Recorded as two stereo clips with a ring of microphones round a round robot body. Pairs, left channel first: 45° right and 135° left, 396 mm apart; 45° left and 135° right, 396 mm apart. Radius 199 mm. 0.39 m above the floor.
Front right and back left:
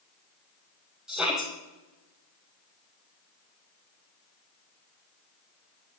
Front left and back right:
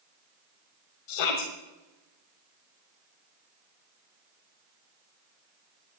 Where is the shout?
45° left, 2.0 m.